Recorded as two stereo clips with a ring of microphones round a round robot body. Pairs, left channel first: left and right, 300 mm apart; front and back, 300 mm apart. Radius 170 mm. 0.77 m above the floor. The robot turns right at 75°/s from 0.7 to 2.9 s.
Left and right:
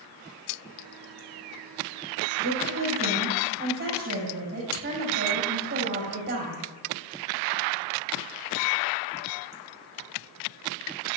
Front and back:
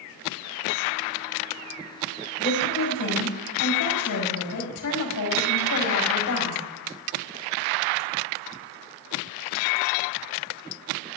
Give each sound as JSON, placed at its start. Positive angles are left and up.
{"t": 2.4, "sound": "a woman speaking", "azimuth_deg": -70, "distance_m": 5.0}